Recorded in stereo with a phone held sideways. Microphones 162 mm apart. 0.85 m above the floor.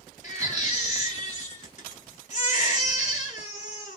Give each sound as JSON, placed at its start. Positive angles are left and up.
{"t": 0.2, "sound": "a baby crying", "side_deg": 50, "distance_m": 1.3}